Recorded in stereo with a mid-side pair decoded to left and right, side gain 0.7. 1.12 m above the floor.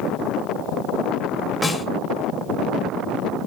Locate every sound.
1.6 s a snare drum: 5° left, 1.7 m